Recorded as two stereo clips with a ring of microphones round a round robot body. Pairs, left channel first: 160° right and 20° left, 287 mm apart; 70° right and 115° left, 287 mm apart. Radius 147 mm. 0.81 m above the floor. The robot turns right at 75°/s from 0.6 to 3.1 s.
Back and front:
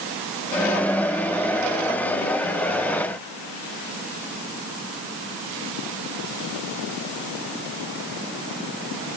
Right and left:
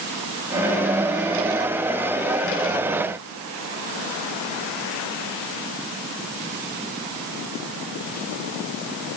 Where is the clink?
I don't hear a clink.